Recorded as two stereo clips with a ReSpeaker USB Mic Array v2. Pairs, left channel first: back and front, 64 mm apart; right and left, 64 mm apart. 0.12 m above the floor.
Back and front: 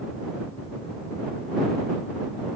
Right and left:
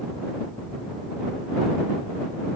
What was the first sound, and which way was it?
Only background noise.